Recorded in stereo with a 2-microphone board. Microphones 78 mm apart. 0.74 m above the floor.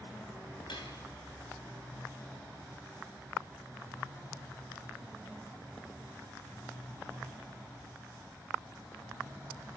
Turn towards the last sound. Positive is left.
turn(degrees=85)